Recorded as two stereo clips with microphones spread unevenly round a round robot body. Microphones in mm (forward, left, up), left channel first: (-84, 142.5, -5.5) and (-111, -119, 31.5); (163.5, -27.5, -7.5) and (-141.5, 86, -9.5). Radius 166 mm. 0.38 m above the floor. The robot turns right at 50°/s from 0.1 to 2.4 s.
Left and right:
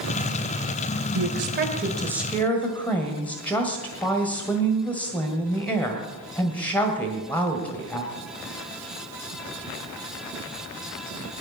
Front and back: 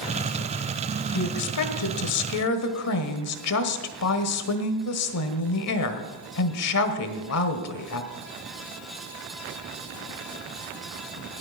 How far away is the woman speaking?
About 1.6 m.